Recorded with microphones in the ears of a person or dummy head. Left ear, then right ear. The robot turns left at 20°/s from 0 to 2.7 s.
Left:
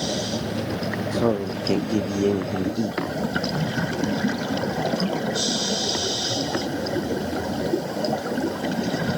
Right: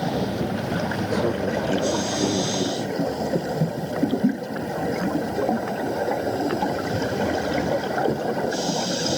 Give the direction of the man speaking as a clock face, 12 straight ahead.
7 o'clock.